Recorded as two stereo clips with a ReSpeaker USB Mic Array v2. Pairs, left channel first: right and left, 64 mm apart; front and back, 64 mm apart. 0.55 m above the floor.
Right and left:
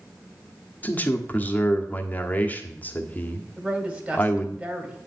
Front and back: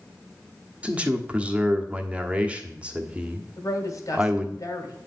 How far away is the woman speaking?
About 2.5 m.